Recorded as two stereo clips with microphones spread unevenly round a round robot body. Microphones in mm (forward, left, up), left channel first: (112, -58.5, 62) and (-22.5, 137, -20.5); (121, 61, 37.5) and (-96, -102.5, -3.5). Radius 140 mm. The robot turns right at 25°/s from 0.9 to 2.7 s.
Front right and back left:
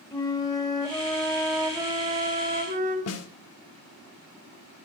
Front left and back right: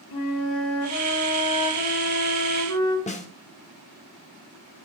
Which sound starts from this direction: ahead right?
A snare drum, at 3.1 s.